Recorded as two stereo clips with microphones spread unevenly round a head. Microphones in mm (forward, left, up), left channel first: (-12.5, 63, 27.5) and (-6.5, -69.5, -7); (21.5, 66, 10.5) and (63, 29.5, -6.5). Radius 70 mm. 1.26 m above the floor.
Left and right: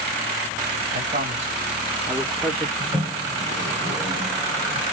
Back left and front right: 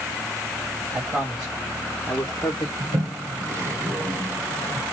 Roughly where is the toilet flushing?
Ahead.